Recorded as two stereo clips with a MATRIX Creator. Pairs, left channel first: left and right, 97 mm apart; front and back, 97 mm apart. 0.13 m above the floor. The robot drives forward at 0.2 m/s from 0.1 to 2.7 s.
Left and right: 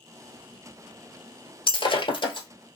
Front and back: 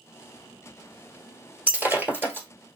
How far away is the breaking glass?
About 1.4 m.